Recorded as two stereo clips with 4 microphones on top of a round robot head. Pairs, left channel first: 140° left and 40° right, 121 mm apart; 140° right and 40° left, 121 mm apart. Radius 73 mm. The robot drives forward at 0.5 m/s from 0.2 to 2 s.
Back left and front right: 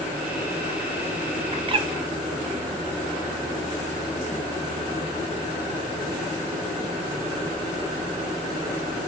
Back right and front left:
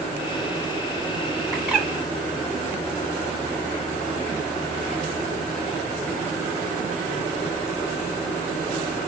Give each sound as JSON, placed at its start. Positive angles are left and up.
{"t": 1.5, "sound": "a bird", "azimuth_deg": -35, "distance_m": 1.3}